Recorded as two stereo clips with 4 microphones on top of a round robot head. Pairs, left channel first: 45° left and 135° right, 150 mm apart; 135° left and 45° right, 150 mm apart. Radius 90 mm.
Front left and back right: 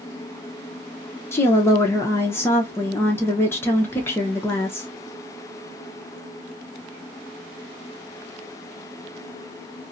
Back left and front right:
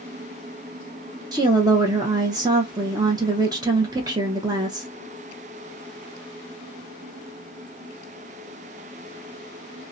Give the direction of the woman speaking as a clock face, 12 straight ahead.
12 o'clock.